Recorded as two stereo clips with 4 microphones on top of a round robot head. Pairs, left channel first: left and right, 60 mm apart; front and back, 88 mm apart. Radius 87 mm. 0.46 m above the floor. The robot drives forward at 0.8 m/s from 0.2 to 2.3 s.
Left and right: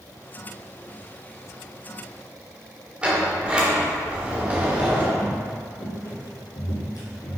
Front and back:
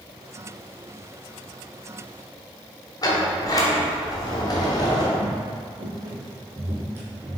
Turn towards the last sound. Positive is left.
turn(degrees=110)